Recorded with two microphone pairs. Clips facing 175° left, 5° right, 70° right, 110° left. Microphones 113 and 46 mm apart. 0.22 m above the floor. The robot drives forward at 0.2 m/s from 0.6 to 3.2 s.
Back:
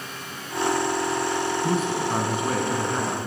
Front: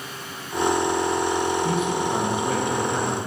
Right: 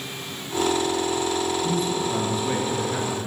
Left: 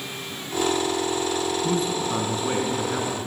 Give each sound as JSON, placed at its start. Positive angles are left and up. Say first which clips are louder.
{"t": 1.6, "sound": "a man speaking", "louder": "front 1 dB, even", "azimuth_deg": 145, "distance_m": 2.5}